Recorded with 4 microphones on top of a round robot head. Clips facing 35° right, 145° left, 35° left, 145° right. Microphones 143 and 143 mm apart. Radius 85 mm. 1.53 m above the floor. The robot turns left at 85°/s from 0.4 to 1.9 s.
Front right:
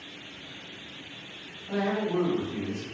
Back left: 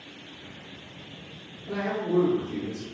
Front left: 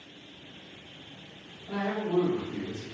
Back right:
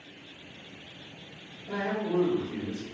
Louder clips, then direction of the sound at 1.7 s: Even, even; 155° left.